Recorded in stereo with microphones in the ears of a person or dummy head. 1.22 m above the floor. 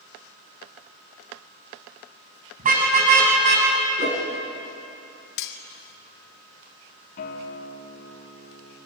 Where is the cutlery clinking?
60° left (ahead or behind), 1.0 m.